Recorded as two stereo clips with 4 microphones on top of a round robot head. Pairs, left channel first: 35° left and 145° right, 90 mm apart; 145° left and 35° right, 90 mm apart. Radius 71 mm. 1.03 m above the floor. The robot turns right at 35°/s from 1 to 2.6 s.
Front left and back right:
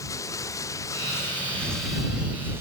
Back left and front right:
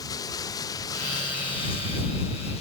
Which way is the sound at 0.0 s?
95° left.